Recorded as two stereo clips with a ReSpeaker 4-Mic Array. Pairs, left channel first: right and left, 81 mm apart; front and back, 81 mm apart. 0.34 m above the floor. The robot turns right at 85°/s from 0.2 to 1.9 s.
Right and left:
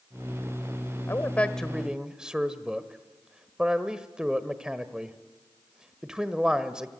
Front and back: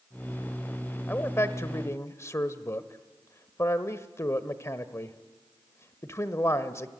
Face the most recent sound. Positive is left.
turn(degrees=15)